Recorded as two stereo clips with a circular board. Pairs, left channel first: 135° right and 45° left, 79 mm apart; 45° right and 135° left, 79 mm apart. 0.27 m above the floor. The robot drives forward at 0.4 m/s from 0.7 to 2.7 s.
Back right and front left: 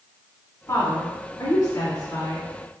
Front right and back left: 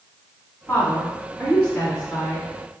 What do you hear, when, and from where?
0.7 s a woman speaking: 105° right, 2.0 m; by 2.5 s 125° right, 2.5 m